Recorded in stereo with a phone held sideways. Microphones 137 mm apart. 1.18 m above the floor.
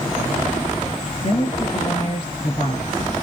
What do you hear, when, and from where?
1.2 s a woman speaking: 45° left (ahead or behind), 1.6 m